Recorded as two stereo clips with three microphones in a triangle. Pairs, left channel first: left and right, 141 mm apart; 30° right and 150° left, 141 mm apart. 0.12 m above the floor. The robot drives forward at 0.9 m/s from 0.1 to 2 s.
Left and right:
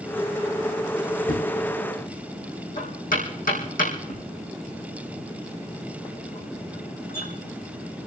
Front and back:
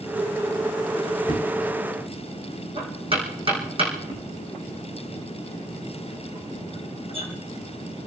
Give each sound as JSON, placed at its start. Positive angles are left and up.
{"t": 1.3, "sound": "knocking", "azimuth_deg": 90, "distance_m": 4.5}